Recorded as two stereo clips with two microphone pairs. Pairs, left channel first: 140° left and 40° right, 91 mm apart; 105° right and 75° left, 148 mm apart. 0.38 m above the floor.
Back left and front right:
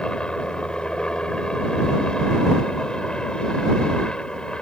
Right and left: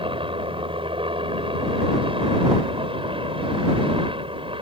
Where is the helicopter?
65° left.